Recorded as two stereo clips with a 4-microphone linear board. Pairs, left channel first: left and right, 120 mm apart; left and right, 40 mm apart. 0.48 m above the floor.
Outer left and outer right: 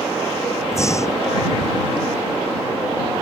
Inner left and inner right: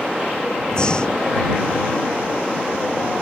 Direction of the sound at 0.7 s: 25° left (ahead or behind).